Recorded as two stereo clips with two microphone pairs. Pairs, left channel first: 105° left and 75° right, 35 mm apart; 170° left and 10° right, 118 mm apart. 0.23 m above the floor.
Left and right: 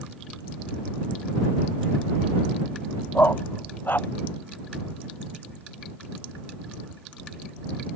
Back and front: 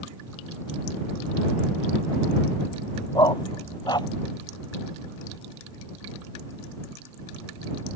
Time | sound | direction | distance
3.1 | a dog barking | 115° left | ?